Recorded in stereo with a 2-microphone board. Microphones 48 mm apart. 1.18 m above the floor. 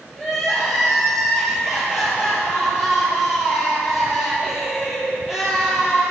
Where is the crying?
10° right (ahead or behind), 4.5 m.